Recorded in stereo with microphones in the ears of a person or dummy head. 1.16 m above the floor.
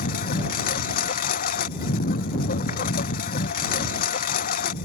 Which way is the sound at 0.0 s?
55° left (ahead or behind).